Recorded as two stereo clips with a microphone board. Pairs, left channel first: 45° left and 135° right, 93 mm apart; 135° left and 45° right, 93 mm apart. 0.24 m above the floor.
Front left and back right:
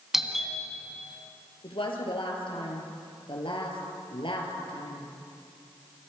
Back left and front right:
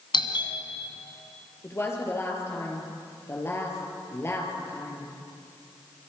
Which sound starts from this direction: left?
A woman speaking, at 1.6 s.